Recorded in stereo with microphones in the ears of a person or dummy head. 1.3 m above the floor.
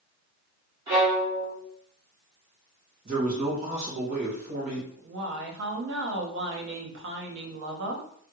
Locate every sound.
0.9 s a violin: 25° right (ahead or behind), 1.6 m
3.0 s a man speaking: 35° right (ahead or behind), 1.5 m
5.0 s a woman speaking: 65° right (ahead or behind), 0.9 m